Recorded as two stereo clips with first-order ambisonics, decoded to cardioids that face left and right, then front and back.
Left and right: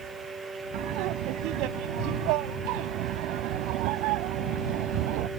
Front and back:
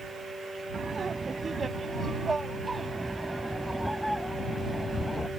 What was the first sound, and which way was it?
Laughter, 115° right.